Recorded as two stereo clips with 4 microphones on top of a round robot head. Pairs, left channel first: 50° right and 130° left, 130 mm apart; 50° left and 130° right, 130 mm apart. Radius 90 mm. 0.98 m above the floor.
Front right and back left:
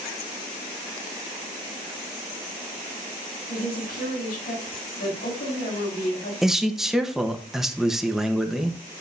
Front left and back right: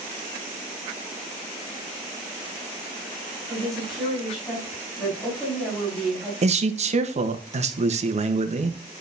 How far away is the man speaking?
About 1.2 m.